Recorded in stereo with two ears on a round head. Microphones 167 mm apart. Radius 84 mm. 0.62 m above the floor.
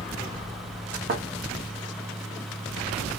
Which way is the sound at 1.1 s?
50° right (ahead or behind).